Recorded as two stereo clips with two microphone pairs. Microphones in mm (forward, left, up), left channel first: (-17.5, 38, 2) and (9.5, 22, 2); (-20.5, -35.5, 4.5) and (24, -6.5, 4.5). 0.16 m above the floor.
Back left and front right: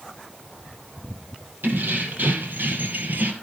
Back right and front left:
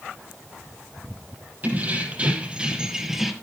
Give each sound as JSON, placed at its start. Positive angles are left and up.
{"t": 1.6, "sound": "keys jangling", "azimuth_deg": -25, "distance_m": 4.5}